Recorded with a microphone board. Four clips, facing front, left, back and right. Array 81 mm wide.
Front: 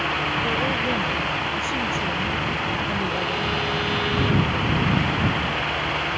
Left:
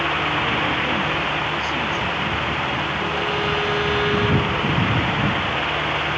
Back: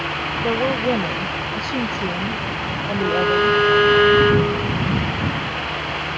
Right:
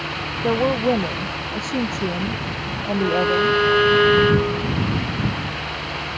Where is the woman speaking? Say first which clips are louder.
Right 3 dB, back 8 dB; 120° right; by 3.6 s 115° right.